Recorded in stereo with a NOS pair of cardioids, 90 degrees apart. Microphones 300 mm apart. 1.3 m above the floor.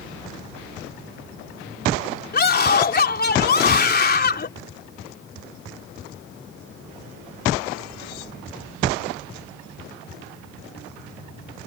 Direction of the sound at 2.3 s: 30° left.